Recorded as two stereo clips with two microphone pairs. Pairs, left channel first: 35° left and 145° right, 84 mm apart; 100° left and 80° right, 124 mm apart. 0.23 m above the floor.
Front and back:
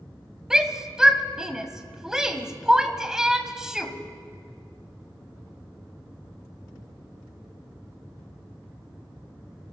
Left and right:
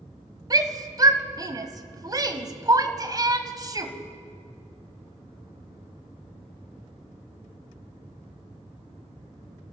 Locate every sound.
0.5 s a shout: 70° right, 1.4 m